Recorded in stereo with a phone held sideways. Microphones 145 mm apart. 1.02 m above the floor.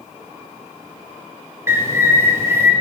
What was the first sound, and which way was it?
A bird, 20° right (ahead or behind).